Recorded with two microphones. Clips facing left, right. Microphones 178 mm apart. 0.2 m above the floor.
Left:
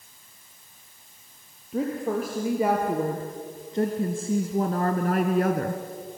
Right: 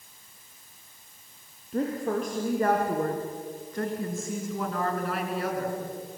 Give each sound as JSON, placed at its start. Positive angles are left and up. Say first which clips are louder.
{"t": 1.7, "sound": "a woman speaking", "louder": "left 1 dB", "side_deg": 5, "distance_m": 3.5}